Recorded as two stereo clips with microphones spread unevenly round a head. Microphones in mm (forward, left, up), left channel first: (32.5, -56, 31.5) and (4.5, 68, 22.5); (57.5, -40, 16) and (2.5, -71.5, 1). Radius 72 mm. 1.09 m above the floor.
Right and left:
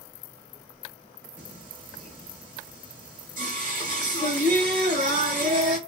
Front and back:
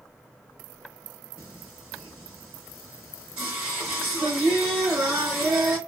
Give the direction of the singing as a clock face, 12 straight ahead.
8 o'clock.